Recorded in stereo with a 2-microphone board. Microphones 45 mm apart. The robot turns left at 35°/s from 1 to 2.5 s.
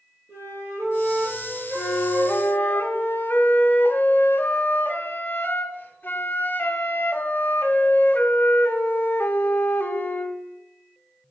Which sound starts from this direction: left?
A flute, at 1.8 s.